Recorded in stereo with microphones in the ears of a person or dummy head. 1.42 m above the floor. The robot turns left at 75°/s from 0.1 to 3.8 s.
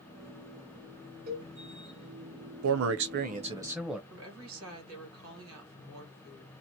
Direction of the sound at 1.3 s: 40° right (ahead or behind).